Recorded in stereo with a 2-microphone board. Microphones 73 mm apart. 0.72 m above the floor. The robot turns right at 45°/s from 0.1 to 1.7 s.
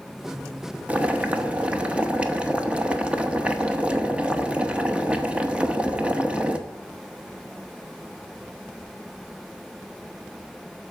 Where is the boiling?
20° right (ahead or behind), 0.8 m; by 6.6 s 15° right (ahead or behind), 0.8 m.